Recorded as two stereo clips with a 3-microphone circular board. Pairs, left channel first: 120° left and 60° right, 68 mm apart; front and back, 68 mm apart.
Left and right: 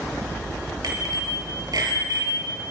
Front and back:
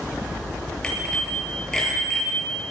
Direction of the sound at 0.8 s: 80° right.